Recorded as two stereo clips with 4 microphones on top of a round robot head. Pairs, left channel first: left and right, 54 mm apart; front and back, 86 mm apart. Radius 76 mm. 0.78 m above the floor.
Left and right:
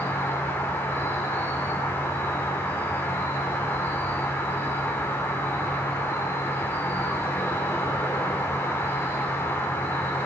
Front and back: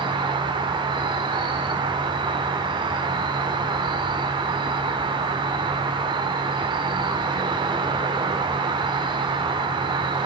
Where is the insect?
150° left, 1.5 m.